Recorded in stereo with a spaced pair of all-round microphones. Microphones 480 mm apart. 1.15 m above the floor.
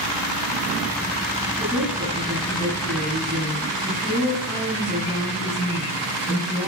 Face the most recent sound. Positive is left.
turn(degrees=0)  # may be behind; listen again after turning